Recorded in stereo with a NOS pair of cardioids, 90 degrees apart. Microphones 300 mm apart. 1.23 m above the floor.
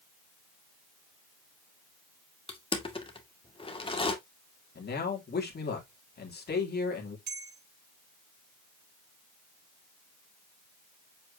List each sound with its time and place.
2.5 s crushing: 15° left, 2 m
4.8 s a man speaking: 35° left, 3 m
7.3 s a bell: 35° right, 3.5 m